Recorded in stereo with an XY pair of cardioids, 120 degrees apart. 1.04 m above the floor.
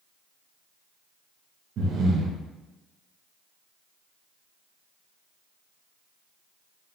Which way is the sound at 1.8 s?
60° right.